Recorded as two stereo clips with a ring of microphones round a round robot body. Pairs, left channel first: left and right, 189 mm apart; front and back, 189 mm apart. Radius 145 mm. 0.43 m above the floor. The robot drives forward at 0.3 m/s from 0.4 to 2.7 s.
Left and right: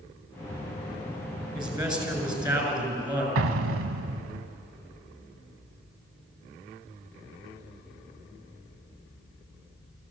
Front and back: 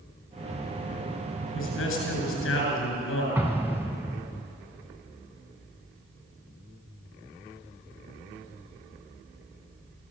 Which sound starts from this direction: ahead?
A man speaking, at 1.6 s.